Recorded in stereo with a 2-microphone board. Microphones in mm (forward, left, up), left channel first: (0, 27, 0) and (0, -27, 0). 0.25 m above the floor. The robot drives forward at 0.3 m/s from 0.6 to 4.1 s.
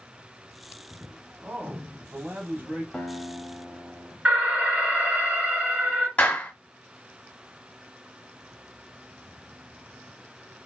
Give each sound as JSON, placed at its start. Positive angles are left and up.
{"t": 1.4, "sound": "a man speaking", "side_deg": -45, "distance_m": 1.3}
{"t": 2.9, "sound": "a guitar", "side_deg": 15, "distance_m": 1.3}
{"t": 4.2, "sound": "an alarm", "side_deg": -20, "distance_m": 2.5}
{"t": 6.2, "sound": "a clap", "side_deg": 25, "distance_m": 1.0}